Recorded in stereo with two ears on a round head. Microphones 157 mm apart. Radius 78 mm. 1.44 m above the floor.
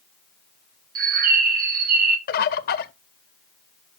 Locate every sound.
0.9 s a bird: 55° right (ahead or behind), 1.2 m
2.3 s a bird: 60° left (ahead or behind), 0.7 m